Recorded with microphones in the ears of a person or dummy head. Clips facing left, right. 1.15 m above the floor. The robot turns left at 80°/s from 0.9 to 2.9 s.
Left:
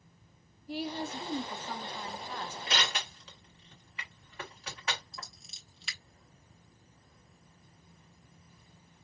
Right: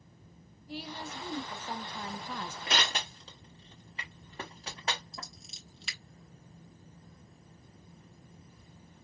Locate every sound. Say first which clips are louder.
0.7 s a woman speaking: left 6 dB; 50° left, 0.7 m; by 2.6 s 85° right, 0.7 m
2.7 s crushing: right 3 dB; 40° right (ahead or behind), 1.2 m; by 5.3 s 25° right (ahead or behind), 1.2 m
5.1 s scissors: right 2 dB; centre (ahead or behind), 1.0 m